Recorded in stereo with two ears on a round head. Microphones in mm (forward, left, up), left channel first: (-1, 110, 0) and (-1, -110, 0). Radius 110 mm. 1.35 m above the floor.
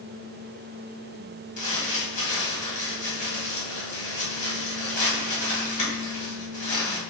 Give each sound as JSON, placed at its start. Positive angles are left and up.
{"t": 1.6, "sound": "crumpling", "side_deg": 30, "distance_m": 1.4}